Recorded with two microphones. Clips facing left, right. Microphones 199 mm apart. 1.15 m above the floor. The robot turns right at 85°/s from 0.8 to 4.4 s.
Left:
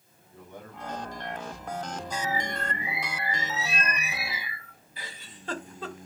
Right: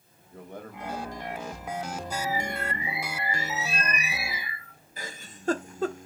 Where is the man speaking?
85° right, 1.8 m; by 2.0 s 15° left, 1.8 m.